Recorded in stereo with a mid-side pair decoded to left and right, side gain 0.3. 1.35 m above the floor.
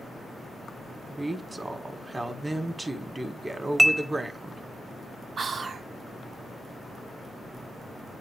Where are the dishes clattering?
20° right, 1.5 m.